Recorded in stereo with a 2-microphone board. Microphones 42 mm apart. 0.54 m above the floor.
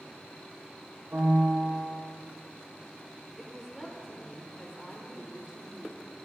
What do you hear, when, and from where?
1.1 s a piano: 50° right (ahead or behind), 5 m
3.4 s a woman speaking: 5° right (ahead or behind), 2.0 m